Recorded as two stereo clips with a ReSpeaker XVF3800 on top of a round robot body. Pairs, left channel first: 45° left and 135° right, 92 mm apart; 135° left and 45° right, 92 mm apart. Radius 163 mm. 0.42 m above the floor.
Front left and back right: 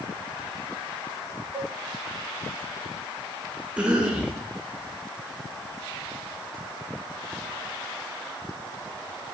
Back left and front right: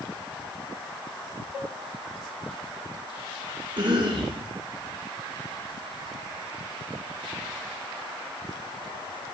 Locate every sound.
1.5 s a cowbell: 155° left, 0.5 m
3.8 s a cough: 60° right, 1.5 m